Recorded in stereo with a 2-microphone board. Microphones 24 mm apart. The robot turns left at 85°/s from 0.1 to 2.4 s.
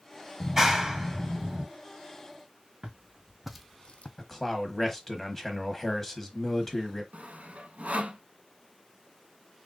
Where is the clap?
10° right (ahead or behind), 0.8 m; by 1.7 s 15° right (ahead or behind), 0.8 m.